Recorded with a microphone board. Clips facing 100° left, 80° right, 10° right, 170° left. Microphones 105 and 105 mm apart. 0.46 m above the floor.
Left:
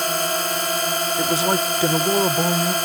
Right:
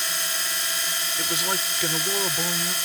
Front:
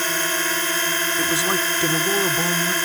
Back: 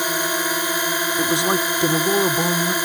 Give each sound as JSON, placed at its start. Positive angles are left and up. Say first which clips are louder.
{"t": 0.0, "sound": "a drone", "louder": "left 11 dB, back 2 dB", "azimuth_deg": 95}
{"t": 1.2, "sound": "a man speaking", "louder": "left 9 dB, back 4 dB", "azimuth_deg": 115}